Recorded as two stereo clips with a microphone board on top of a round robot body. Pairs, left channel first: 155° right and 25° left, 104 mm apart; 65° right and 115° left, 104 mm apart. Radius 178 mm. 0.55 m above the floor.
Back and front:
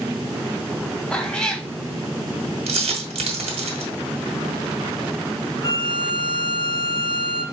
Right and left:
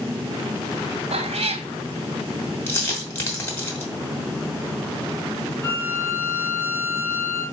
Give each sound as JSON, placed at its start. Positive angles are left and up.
{"t": 1.1, "sound": "a cat meowing", "azimuth_deg": 120, "distance_m": 0.9}
{"t": 2.7, "sound": "a dropped coin", "azimuth_deg": 0, "distance_m": 1.5}
{"t": 5.6, "sound": "a violin", "azimuth_deg": -125, "distance_m": 1.6}